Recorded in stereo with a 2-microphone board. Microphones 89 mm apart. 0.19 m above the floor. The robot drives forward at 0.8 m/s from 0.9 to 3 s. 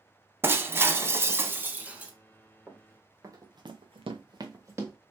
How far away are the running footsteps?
About 1.7 m.